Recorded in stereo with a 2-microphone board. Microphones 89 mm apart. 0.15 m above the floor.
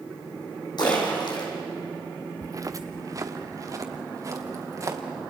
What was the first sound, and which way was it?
A splash, 55° left (ahead or behind).